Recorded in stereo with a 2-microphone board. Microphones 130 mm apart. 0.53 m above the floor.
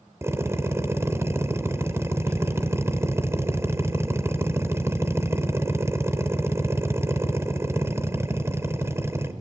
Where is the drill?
20° right (ahead or behind), 2 m.